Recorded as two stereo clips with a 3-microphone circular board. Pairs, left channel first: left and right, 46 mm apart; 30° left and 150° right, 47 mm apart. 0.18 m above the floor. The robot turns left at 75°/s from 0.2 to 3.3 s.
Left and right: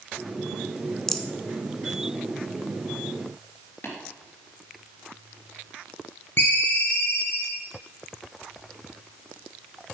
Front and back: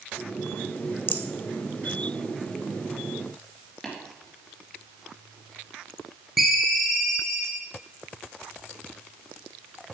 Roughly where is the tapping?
Behind left.